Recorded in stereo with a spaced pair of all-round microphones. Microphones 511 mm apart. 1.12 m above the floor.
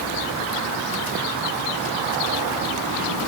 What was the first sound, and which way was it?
Only background noise.